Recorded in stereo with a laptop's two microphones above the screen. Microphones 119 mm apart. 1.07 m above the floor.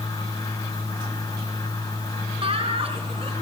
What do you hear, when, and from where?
0.0 s a fan: 30° left (ahead or behind), 2.5 m
2.4 s laughter: 55° right (ahead or behind), 3.5 m